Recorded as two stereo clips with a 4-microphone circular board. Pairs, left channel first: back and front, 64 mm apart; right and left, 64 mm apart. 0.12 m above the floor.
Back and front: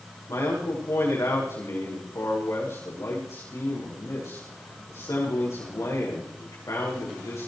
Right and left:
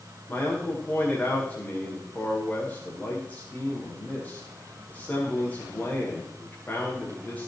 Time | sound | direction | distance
0.3 | a man speaking | 150° right | 8.5 m